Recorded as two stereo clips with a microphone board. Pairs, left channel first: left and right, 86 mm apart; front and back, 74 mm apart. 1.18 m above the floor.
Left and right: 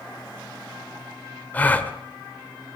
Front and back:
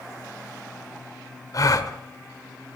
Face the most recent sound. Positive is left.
turn(degrees=25)